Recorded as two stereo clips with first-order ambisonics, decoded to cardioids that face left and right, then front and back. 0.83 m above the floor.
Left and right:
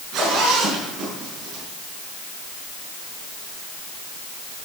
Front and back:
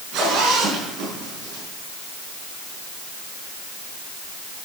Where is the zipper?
145° right, 5.5 m.